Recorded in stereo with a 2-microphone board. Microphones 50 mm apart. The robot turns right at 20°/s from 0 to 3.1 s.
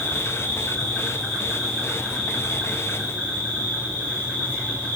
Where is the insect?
145° left, 6 m; by 5.0 s 155° right, 6 m.